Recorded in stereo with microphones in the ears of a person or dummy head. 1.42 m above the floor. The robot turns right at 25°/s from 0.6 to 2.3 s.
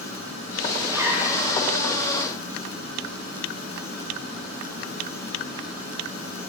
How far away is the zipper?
About 1.7 m.